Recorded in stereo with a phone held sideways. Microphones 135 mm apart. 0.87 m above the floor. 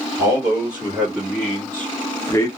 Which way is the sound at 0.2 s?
15° right (ahead or behind).